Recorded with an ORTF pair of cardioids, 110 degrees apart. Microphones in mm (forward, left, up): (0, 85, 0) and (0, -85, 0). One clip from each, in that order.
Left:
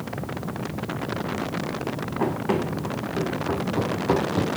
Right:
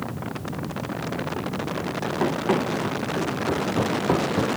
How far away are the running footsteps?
About 5 m.